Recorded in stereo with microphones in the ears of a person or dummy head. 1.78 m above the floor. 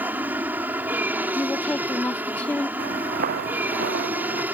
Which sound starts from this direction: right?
Footsteps, at 2.8 s.